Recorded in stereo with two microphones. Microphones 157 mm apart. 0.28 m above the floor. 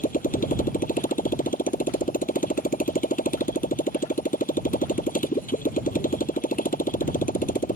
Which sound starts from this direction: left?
A motorcycle, at 0.0 s.